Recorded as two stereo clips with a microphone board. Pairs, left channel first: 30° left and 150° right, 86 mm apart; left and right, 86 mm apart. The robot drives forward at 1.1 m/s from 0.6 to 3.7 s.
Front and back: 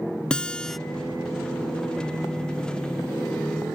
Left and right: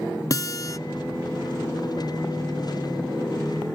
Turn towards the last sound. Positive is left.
turn(degrees=170)